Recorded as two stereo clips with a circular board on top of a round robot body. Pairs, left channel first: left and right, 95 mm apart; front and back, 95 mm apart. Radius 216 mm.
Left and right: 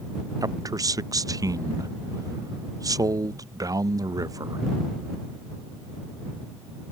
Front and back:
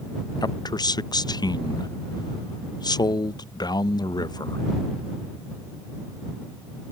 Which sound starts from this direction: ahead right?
A man speaking, at 0.4 s.